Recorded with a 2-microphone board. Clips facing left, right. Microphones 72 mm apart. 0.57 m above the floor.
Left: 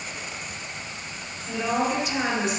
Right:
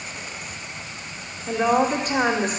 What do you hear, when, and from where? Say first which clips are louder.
1.5 s a woman speaking: right 5 dB; 50° right (ahead or behind), 1.5 m